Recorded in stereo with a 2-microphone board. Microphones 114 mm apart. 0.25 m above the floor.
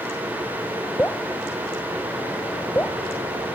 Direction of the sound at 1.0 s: 20° left (ahead or behind).